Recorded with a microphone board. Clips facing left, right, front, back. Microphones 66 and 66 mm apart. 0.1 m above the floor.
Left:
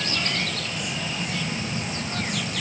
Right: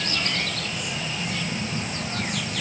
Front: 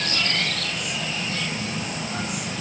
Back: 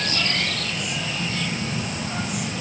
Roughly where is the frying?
No frying in this recording.